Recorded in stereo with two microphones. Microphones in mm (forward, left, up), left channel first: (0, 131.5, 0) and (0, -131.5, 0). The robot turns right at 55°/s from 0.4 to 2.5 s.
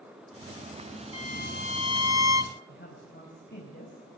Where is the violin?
25° left, 0.6 m; by 2.6 s 100° left, 0.6 m.